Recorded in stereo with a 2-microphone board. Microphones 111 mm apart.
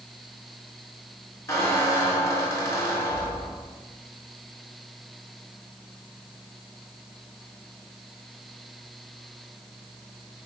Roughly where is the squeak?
Left.